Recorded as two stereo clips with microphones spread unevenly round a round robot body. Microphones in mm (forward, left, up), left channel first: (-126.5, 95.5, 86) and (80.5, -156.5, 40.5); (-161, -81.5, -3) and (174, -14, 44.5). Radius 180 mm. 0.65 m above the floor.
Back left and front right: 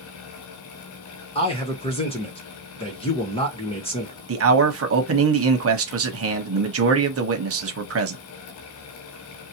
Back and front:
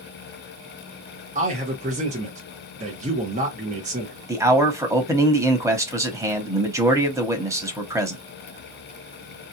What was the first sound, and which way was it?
A man speaking, 65° left.